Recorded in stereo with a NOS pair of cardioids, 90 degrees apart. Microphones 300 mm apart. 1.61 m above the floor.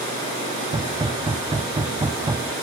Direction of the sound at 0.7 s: 15° right.